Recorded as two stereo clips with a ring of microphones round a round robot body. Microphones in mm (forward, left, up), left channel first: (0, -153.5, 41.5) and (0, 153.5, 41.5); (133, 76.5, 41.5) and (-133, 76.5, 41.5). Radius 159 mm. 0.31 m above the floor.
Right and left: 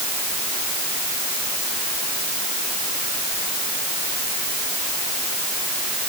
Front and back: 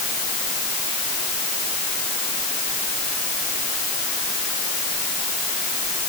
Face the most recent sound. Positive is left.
No sound to turn to.